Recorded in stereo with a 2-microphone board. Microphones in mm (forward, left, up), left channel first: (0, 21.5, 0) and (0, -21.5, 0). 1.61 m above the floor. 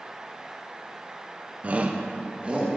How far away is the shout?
About 0.5 m.